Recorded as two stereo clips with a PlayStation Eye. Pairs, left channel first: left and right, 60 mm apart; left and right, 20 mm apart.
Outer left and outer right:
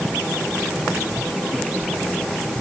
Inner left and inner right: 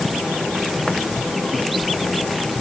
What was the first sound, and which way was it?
Only background noise.